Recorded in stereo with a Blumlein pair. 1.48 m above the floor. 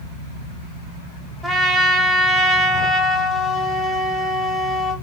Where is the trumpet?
Straight ahead, 1.0 m.